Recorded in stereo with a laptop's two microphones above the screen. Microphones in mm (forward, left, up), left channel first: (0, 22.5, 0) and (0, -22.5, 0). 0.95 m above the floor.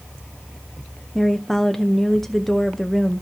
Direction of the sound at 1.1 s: 5° left (ahead or behind).